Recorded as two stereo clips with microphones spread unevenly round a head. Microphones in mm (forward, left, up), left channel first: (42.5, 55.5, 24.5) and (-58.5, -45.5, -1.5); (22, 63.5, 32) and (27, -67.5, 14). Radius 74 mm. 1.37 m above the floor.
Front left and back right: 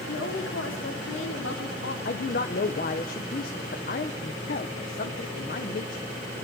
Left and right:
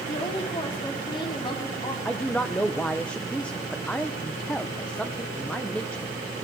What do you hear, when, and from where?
0.1 s a woman speaking: 40° left, 4 m
2.0 s a man speaking: 10° left, 1.1 m